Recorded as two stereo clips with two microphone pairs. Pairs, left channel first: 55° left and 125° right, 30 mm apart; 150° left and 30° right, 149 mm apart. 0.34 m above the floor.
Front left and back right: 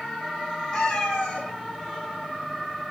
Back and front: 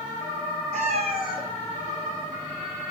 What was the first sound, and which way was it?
A cat meowing, 10° left.